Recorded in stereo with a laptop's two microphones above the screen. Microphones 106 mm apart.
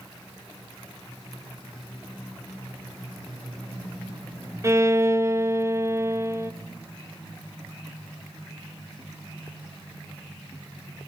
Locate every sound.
4.6 s a violin: 25° right (ahead or behind), 0.7 m